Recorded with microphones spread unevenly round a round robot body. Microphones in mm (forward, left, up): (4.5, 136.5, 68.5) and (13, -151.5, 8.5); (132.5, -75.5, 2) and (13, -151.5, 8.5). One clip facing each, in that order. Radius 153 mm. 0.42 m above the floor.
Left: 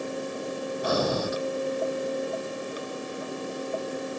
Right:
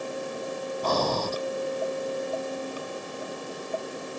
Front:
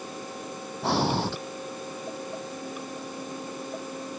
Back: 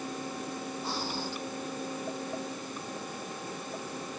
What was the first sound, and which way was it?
Breathing, 10° left.